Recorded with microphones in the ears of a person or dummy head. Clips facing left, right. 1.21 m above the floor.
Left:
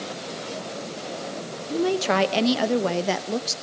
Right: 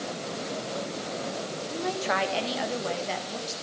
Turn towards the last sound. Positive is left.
turn(degrees=70)  # may be behind; listen again after turning